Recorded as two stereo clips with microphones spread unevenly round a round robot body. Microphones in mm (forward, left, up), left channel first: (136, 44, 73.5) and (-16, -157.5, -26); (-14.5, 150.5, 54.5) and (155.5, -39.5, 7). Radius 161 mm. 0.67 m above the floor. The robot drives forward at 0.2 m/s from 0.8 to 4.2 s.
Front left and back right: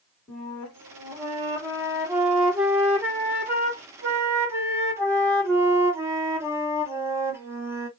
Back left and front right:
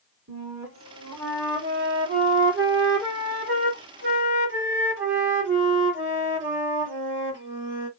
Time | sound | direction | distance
0.3 | a flute | 50° right | 2 m